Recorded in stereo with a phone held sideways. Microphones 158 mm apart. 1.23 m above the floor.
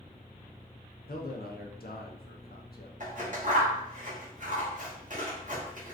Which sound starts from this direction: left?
A man speaking, at 1.1 s.